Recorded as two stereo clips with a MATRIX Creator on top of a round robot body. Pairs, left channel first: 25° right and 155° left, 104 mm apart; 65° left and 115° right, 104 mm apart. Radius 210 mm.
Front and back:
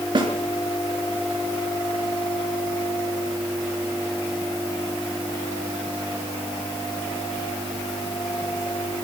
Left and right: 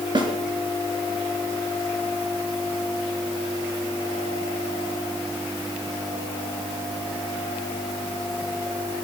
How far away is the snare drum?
About 3 m.